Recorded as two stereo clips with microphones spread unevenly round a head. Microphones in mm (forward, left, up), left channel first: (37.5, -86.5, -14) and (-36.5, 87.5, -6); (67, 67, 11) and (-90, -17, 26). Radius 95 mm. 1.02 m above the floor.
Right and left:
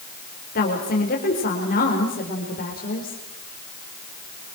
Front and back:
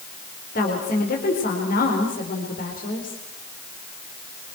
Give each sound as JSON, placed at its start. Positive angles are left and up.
{"t": 0.6, "sound": "a woman speaking", "azimuth_deg": -20, "distance_m": 4.5}